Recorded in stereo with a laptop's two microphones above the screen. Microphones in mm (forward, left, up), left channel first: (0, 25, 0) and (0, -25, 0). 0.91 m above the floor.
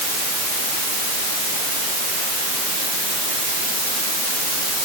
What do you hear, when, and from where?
Only background noise.